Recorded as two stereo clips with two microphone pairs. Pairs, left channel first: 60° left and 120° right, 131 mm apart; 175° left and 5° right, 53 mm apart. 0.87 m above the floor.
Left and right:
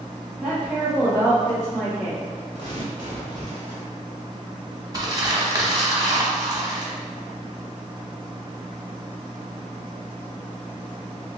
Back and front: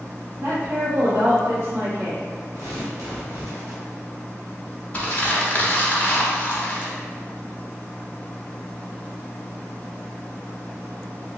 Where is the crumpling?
150° right, 0.8 m.